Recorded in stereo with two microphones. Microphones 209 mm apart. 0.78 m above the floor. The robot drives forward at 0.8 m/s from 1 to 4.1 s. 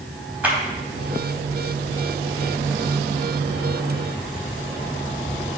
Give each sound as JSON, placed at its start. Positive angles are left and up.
{"t": 0.4, "sound": "a clap", "side_deg": -5, "distance_m": 4.0}